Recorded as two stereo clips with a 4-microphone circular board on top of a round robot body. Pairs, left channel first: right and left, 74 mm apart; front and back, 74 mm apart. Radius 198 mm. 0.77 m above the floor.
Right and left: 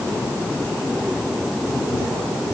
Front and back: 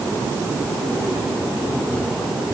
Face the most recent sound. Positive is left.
No sound to turn to.